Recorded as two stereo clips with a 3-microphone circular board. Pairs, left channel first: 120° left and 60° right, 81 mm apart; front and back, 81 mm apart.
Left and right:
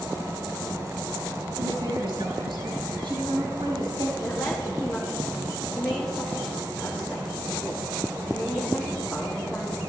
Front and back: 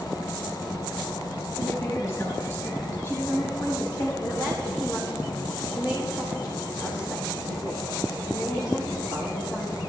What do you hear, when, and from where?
1.6 s a woman speaking: 50° right, 6 m; by 4.1 s 40° right, 6 m
4.2 s a woman speaking: 45° left, 3.5 m